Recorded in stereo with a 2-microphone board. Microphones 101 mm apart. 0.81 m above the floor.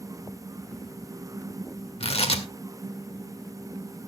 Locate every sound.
2.0 s tearing paper: 80° left, 2.0 m